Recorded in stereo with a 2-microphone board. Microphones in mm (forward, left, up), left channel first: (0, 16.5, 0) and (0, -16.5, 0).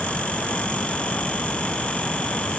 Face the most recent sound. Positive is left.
No sound to turn to.